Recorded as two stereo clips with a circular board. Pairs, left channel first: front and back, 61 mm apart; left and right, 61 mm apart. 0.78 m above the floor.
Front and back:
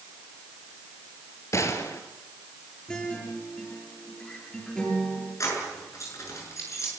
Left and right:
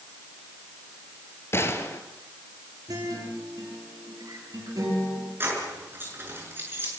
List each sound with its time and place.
1.5 s a gunshot: 40° left, 2.5 m
2.9 s a guitar: 75° right, 9.5 m
5.4 s keys jangling: 35° right, 7.5 m